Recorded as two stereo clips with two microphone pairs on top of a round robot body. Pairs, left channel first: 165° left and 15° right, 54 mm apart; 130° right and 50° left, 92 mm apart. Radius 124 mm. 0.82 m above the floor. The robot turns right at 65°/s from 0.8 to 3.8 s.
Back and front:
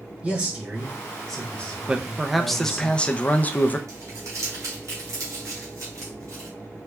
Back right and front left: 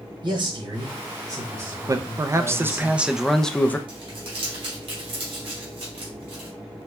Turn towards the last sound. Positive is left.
turn(degrees=15)